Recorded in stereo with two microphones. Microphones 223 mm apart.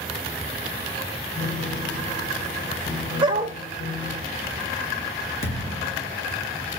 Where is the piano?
60° left (ahead or behind), 3 m.